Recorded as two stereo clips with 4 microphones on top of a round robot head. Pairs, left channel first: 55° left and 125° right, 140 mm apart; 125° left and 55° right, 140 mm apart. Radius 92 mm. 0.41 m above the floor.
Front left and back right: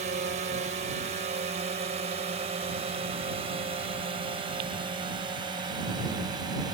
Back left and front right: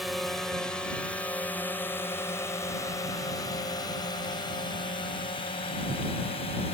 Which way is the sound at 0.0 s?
145° right.